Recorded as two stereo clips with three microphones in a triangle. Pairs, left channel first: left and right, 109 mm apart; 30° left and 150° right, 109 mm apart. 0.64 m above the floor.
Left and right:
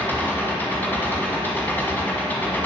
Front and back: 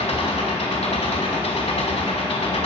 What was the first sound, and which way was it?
An engine running, 20° left.